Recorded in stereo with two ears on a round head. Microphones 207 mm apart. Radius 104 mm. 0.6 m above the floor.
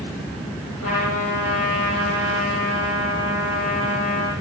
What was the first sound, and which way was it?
A trumpet, 65° left (ahead or behind).